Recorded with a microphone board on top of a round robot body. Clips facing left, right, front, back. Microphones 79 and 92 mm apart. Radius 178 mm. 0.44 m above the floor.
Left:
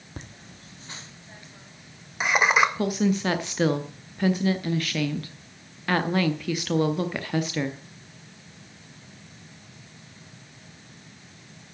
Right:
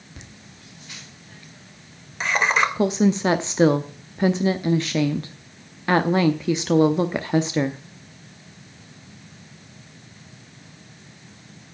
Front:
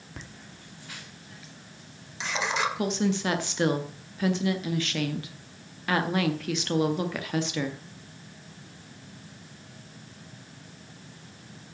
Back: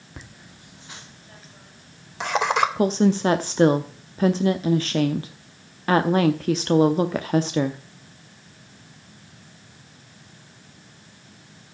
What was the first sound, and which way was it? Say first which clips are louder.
Laughter: left 5 dB, back 1 dB; 95° left.